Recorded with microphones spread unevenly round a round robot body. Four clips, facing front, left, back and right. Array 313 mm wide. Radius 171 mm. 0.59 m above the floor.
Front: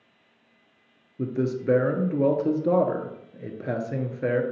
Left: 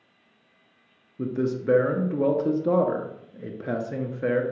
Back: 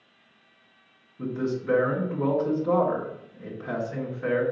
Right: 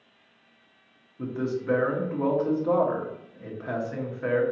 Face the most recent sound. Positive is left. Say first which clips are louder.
# left 3 dB, front 2 dB
turn(degrees=40)